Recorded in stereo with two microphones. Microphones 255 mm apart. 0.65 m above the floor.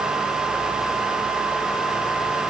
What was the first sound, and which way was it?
Only background noise.